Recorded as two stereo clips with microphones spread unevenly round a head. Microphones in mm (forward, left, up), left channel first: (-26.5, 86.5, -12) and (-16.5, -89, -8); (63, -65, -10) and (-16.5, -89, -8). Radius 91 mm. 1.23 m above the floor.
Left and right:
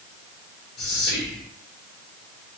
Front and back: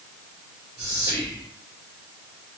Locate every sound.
0.8 s whispering: 125° left, 1.8 m